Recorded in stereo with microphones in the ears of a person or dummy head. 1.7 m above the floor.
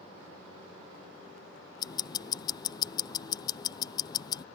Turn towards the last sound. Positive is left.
turn(degrees=25)  # may be behind; listen again after turning